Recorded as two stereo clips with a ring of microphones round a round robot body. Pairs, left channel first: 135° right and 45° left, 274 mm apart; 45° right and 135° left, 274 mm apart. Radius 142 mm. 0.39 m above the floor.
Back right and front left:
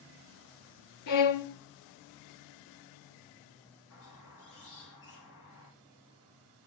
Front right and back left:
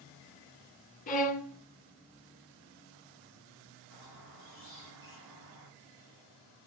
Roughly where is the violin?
Right.